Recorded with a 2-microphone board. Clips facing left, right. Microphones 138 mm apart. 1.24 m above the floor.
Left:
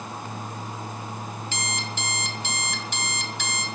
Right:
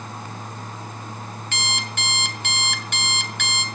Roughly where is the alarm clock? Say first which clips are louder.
Right 4 dB; right.